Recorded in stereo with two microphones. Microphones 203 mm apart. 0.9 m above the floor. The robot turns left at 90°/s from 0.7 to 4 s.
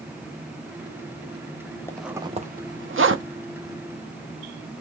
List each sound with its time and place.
1.9 s a zipper: 10° left (ahead or behind), 0.5 m; by 3.2 s 70° right (ahead or behind), 0.5 m